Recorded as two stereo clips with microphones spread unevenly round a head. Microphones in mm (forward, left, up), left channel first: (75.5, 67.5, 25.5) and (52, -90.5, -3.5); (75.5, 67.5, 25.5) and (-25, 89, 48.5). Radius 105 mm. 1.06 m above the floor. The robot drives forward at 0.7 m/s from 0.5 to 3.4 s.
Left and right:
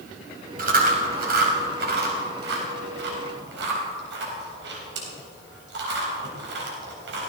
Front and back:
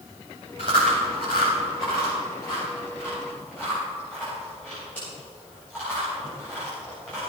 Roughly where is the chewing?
Ahead right.